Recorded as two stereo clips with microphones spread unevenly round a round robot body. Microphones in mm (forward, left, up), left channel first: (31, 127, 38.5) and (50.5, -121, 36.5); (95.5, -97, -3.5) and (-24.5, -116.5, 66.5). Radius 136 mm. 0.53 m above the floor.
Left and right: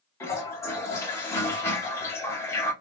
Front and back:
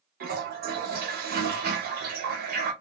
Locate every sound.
0.2 s a toilet flushing: 175° left, 0.6 m